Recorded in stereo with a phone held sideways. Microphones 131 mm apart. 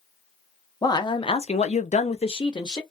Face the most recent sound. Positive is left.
turn(degrees=30)  # may be behind; listen again after turning